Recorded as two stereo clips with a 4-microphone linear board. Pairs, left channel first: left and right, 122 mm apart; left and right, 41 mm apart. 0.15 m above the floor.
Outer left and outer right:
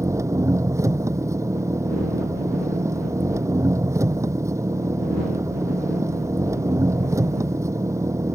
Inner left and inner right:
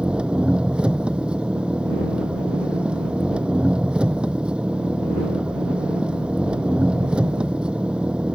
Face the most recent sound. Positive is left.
turn(degrees=-25)  # may be behind; listen again after turning